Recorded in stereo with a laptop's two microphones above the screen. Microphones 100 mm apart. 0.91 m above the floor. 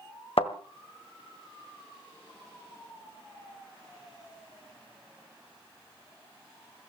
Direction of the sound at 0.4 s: 75° left (ahead or behind).